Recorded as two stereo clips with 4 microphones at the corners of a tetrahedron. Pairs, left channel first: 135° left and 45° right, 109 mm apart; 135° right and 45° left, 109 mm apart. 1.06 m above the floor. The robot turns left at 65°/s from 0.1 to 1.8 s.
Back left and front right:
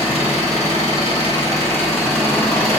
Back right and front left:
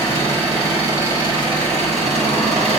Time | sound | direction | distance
0.0 | an engine running | 170° left | 5 m